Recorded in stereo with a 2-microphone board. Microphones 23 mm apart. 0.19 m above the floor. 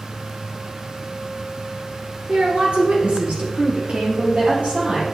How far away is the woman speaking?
About 2.5 m.